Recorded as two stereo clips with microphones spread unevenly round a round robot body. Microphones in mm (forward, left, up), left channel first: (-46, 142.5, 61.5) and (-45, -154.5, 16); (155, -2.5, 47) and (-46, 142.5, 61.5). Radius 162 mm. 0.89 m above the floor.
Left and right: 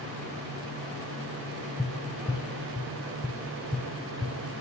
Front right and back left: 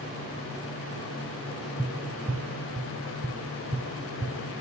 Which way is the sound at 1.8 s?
125° left.